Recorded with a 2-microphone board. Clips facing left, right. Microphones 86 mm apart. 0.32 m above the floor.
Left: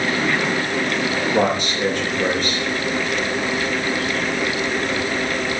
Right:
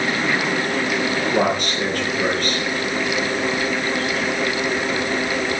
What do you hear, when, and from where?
1.3 s a man speaking: 50° right (ahead or behind), 4.5 m